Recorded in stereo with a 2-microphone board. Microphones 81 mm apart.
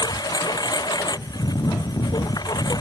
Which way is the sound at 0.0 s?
55° left (ahead or behind).